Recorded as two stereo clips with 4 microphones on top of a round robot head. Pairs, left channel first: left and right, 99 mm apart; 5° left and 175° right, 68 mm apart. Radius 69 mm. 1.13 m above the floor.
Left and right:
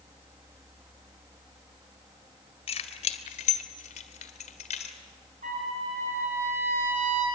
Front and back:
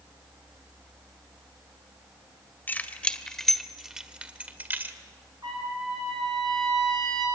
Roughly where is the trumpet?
Behind right.